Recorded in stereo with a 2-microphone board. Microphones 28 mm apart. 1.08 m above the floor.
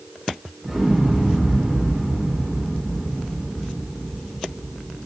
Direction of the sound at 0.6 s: 10° right (ahead or behind).